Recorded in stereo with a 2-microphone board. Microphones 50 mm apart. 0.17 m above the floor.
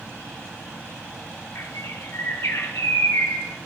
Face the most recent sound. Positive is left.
turn(degrees=65)  # may be behind; listen again after turning